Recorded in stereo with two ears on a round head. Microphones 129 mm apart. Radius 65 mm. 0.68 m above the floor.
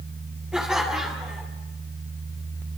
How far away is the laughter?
About 2.5 m.